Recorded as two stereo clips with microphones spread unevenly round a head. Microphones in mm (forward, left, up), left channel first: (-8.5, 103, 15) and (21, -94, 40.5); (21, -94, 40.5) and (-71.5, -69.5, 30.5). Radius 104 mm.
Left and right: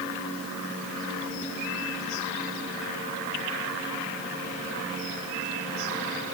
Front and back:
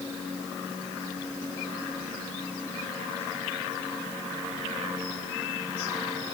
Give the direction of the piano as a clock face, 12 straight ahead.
I don't hear a piano.